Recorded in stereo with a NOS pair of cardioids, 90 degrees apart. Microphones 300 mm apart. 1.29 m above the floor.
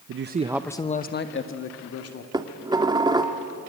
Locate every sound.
0.1 s a man speaking: 50° right, 0.9 m; by 2.2 s 55° left, 2.5 m
2.3 s dishes clattering: 15° right, 1.9 m